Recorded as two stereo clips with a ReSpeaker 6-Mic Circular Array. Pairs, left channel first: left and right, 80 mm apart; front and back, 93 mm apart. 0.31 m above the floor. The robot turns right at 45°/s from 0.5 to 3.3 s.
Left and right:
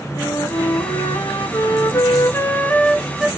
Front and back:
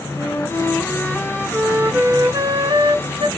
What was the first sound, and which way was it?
A flute, 55° left.